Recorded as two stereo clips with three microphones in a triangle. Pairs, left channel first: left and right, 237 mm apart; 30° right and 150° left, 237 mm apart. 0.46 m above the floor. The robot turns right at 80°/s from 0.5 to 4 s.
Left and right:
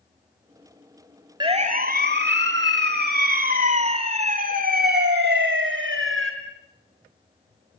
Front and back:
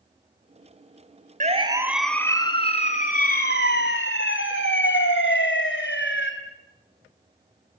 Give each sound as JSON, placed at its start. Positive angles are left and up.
{"t": 1.4, "sound": "a siren", "azimuth_deg": -160, "distance_m": 3.0}